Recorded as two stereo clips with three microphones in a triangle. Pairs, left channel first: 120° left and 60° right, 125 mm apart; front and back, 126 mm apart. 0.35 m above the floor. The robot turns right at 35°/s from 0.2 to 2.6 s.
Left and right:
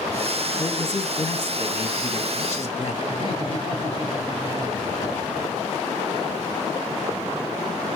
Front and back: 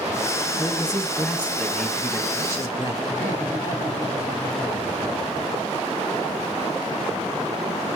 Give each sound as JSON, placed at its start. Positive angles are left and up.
{"t": 0.6, "sound": "a man speaking", "azimuth_deg": 45, "distance_m": 1.9}
{"t": 3.1, "sound": "laughter", "azimuth_deg": 65, "distance_m": 6.0}